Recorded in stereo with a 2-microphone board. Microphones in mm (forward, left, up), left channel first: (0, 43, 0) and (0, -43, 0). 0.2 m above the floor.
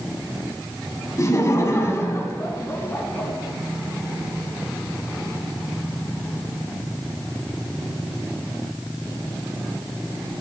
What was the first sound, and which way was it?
Laughter, 35° left (ahead or behind).